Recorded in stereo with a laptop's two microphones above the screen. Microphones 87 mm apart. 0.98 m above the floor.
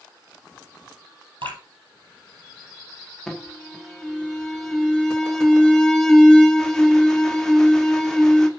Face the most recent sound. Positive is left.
turn(degrees=5)  # may be behind; listen again after turning